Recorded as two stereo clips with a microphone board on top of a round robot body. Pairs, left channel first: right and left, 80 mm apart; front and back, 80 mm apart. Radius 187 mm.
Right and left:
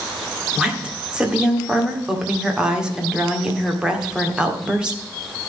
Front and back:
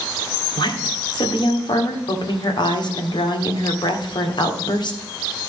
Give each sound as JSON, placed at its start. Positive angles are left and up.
{"t": 0.6, "sound": "a woman speaking", "azimuth_deg": 10, "distance_m": 2.0}